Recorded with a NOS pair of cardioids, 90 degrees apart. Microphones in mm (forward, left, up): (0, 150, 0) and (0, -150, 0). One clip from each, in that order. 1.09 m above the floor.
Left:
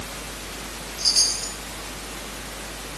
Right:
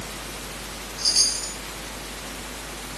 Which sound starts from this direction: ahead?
A chime, at 1.0 s.